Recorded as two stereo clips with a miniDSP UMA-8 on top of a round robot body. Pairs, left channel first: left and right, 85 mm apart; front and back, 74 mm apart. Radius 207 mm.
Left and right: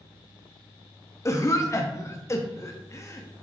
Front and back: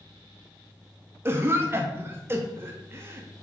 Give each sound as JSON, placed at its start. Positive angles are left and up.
{"t": 1.2, "sound": "a cough", "azimuth_deg": 130, "distance_m": 0.9}